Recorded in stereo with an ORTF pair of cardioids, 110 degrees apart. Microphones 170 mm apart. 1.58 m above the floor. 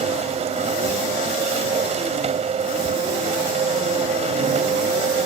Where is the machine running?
40° right.